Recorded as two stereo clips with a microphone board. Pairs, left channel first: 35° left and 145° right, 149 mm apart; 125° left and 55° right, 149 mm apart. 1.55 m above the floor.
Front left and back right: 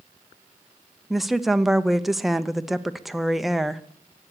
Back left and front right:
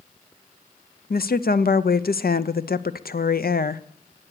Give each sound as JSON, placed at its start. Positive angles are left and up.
{"t": 1.1, "sound": "a woman speaking", "azimuth_deg": 125, "distance_m": 0.5}